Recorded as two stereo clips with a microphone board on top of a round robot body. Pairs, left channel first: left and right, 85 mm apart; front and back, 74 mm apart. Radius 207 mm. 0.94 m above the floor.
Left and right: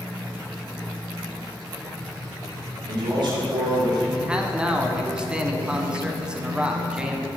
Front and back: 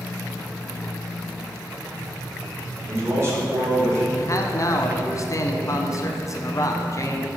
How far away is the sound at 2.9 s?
About 2 m.